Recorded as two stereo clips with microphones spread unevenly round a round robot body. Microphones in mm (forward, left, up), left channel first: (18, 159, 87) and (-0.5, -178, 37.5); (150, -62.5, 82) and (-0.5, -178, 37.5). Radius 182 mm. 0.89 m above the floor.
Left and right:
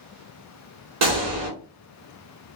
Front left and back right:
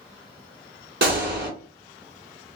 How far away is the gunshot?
About 1.9 m.